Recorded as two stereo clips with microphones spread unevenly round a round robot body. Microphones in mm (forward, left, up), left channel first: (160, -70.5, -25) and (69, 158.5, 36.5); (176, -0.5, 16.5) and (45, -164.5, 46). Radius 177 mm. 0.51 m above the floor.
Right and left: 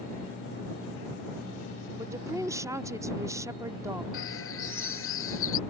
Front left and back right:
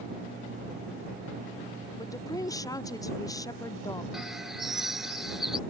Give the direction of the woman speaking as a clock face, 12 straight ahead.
11 o'clock.